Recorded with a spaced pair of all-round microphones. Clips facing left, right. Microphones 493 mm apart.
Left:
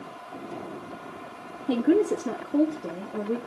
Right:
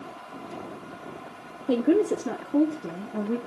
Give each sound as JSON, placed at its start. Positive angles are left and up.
{"t": 1.7, "sound": "a woman speaking", "side_deg": 10, "distance_m": 0.6}